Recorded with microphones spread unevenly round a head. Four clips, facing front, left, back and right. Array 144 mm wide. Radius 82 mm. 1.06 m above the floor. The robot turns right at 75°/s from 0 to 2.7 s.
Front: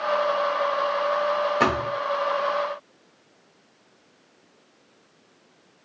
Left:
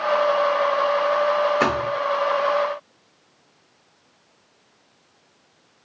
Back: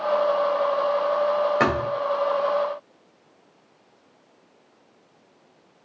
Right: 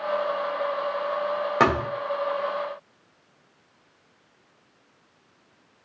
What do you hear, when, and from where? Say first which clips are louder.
1.6 s a thud: even, back 1 dB; 110° right, 2.5 m; by 1.9 s 90° right, 2.5 m